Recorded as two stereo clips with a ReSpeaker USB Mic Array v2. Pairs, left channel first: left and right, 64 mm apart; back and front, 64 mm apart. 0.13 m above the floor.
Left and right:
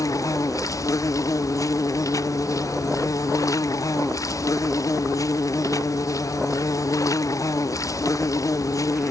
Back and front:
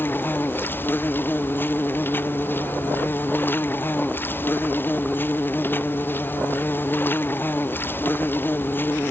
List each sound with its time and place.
0.0 s an insect: 120° left